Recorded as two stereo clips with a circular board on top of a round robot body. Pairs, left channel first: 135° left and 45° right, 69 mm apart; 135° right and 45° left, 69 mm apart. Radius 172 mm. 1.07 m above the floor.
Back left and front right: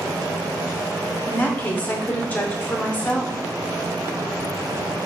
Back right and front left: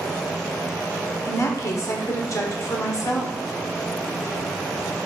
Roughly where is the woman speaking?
Behind.